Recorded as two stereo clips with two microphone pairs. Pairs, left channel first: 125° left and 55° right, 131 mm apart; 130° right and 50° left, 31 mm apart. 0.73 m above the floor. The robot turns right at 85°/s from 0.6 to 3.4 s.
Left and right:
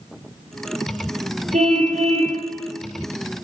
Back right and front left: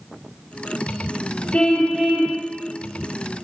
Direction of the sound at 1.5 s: 80° right.